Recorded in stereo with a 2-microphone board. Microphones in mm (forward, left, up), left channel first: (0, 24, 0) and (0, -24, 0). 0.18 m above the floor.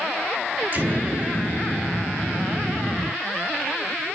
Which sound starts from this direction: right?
An explosion, at 0.7 s.